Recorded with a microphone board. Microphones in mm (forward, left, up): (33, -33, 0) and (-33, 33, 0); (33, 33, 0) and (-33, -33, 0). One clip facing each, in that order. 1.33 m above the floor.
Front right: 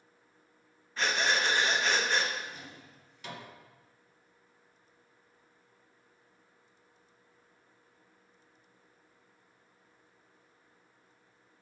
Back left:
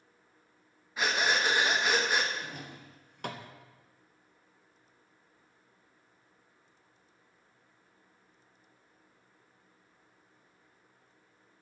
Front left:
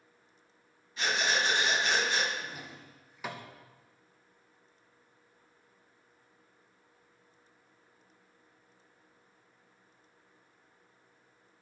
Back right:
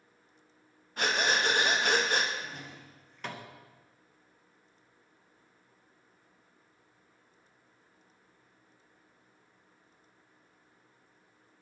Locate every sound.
1.0 s breathing: 145° right, 0.8 m
2.3 s a drawer: 125° left, 0.5 m